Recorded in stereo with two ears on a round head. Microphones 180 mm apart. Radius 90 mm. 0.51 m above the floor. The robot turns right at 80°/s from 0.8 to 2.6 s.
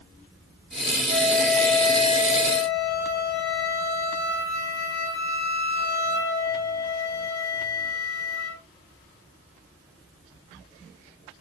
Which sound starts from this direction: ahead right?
A flute, at 1.1 s.